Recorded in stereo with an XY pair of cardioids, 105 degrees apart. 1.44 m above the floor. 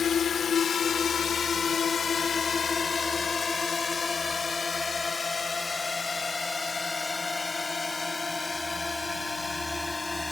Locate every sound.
0.0 s a drone: 50° left; by 10.3 s 20° left